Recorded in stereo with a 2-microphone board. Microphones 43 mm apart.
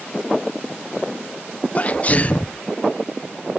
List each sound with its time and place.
1.8 s a sneeze: 30° left (ahead or behind)